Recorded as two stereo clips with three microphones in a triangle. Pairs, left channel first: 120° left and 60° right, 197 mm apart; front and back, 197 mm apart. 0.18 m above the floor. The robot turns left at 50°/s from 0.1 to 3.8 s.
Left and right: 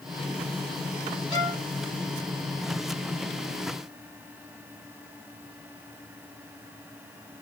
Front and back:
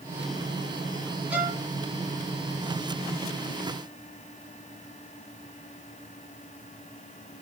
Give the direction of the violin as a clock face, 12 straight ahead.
3 o'clock.